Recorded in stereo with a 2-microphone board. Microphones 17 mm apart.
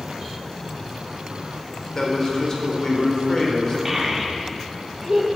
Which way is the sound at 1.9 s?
30° left (ahead or behind).